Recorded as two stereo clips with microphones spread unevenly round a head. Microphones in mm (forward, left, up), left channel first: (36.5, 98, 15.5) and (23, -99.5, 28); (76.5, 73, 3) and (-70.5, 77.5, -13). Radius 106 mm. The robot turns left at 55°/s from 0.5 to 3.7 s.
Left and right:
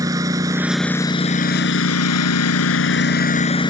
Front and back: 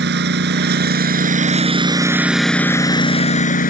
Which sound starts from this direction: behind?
A lawn mower, at 0.0 s.